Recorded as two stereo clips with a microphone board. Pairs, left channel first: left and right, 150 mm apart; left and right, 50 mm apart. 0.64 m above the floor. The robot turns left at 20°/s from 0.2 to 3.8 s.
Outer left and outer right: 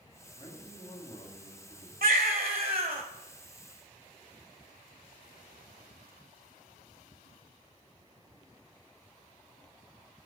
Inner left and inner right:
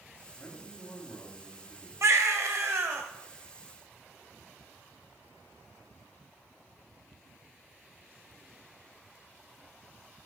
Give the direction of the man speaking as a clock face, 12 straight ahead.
7 o'clock.